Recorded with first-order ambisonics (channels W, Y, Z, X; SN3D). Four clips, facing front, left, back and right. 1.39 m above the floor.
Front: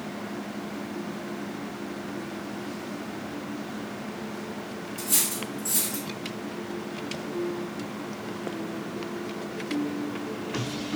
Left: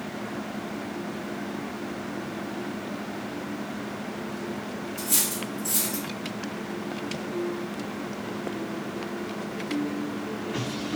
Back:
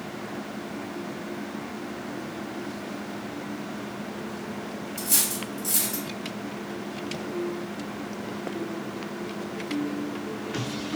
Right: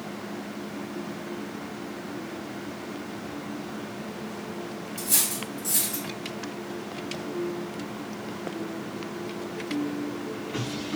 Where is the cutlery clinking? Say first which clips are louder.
Even, back 1 dB; 170° right, 1.5 m.